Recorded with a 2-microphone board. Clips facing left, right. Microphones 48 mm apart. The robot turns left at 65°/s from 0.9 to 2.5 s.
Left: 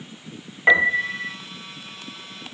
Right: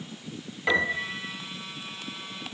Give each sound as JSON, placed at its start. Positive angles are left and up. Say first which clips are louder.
{"t": 0.7, "sound": "a piano", "louder": "left 8 dB", "side_deg": 30, "distance_m": 0.9}